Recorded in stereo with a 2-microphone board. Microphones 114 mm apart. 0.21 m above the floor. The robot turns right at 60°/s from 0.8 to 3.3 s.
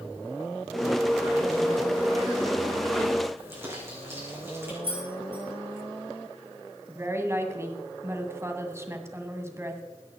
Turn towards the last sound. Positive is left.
turn(degrees=-25)  # may be behind; listen again after turning